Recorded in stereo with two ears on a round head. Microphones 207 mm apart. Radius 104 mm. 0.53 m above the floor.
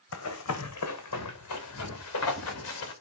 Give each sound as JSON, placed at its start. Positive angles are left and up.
{"t": 0.1, "sound": "running footsteps", "side_deg": 65, "distance_m": 2.0}